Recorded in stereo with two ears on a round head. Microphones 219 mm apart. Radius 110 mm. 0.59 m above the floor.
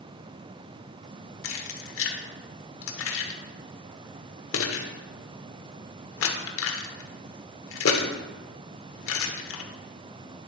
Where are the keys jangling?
60° left (ahead or behind), 1.1 m.